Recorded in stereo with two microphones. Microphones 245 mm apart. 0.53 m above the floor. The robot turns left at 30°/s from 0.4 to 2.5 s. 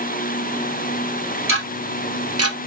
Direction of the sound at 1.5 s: 55° right (ahead or behind).